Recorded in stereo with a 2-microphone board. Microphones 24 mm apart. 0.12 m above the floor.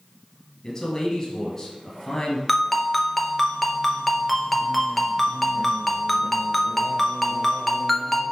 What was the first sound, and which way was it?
A man speaking, 20° left (ahead or behind).